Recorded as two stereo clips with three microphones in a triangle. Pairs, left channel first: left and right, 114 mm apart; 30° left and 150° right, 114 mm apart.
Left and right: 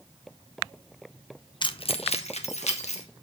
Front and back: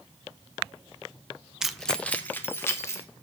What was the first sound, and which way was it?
Keys jangling, 125° left.